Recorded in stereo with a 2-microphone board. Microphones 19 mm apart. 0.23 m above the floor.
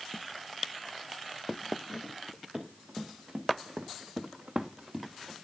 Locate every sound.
2.5 s running footsteps: 55° right (ahead or behind), 3 m; by 5.3 s 30° right (ahead or behind), 1.7 m